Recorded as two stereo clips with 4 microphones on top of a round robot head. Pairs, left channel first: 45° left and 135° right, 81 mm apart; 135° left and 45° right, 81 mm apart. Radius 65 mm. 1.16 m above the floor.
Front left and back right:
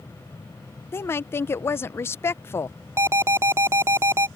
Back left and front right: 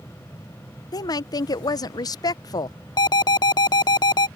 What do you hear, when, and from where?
0.9 s a woman speaking: 105° left
3.0 s an alarm: 170° left